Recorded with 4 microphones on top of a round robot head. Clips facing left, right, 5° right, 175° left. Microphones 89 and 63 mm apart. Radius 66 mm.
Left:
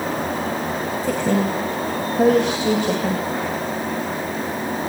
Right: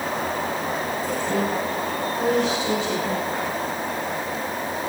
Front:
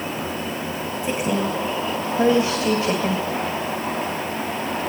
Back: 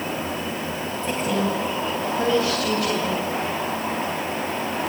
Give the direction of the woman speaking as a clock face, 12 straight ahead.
10 o'clock.